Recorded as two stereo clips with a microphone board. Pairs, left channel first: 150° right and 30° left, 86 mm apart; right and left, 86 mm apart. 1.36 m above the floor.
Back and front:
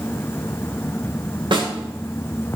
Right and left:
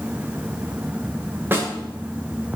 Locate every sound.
1.5 s a snare drum: 30° left, 2.5 m